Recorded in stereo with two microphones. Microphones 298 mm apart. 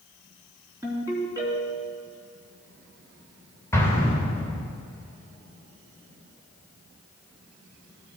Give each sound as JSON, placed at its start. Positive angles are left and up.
{"t": 0.8, "sound": "a ringtone", "side_deg": -10, "distance_m": 3.5}
{"t": 3.7, "sound": "an explosion", "side_deg": 10, "distance_m": 2.5}